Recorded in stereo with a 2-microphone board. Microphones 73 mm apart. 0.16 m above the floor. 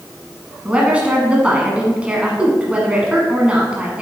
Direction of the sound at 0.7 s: 15° right (ahead or behind).